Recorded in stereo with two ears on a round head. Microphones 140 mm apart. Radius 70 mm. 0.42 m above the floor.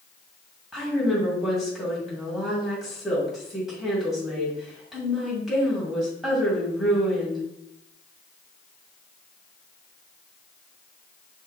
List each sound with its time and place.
0.7 s a woman speaking: 5° right (ahead or behind), 2 m